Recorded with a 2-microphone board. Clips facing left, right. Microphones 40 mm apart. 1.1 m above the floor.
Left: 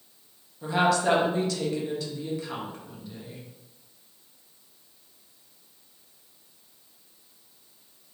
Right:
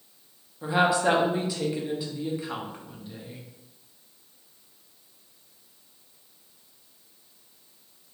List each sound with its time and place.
0.6 s a woman speaking: 15° right (ahead or behind), 0.7 m